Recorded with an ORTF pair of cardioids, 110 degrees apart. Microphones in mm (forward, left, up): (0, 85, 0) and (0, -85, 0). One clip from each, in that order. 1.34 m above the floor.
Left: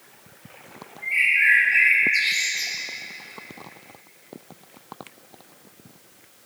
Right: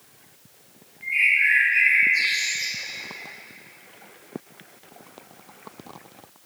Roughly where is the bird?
Ahead left.